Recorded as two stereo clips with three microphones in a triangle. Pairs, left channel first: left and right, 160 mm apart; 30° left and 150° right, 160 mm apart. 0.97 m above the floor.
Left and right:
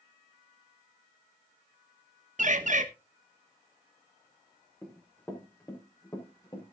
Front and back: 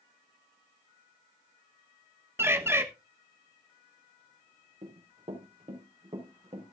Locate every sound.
2.4 s a bird: 80° right, 1.2 m
4.8 s running footsteps: 170° left, 4 m; by 6.7 s 155° left, 4.5 m